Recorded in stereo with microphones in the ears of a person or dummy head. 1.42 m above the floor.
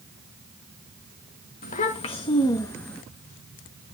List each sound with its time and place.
1.6 s a child speaking: 45° left (ahead or behind), 1.1 m; by 3.0 s 5° left (ahead or behind), 1.3 m